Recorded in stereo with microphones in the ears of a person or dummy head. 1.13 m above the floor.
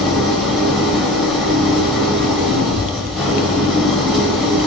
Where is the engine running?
5° left (ahead or behind), 0.8 m.